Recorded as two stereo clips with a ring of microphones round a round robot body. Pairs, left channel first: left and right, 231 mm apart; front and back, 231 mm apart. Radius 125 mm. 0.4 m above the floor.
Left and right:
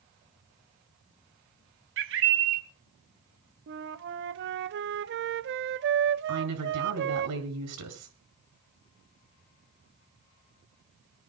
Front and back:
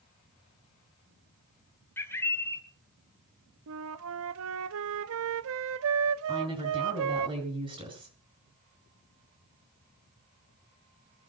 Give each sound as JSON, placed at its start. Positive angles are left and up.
{"t": 2.0, "sound": "a bird", "azimuth_deg": -80, "distance_m": 1.5}
{"t": 3.7, "sound": "a flute", "azimuth_deg": -140, "distance_m": 0.5}
{"t": 6.3, "sound": "a woman speaking", "azimuth_deg": -110, "distance_m": 6.5}